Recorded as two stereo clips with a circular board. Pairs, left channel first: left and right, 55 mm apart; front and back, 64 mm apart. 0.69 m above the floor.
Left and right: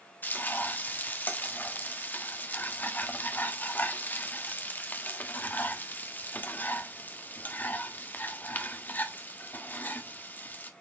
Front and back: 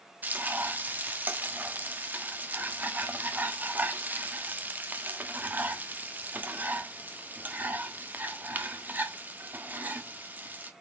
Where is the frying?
130° left, 1.3 m.